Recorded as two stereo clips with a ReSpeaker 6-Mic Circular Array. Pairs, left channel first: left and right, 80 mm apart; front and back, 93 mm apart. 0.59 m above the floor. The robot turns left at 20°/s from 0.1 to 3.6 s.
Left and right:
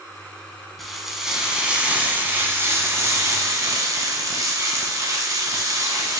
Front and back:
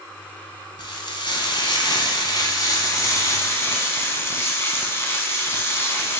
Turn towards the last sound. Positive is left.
turn(degrees=-55)